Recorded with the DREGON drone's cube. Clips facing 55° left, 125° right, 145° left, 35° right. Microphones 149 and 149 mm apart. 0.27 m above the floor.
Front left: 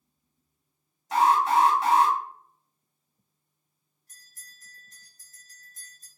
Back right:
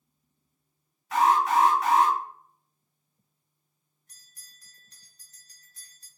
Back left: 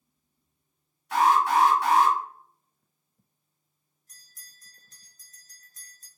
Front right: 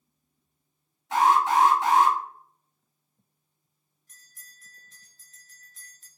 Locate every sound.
1.1 s an alarm: 15° left, 1.1 m
4.1 s a bell: 100° left, 1.0 m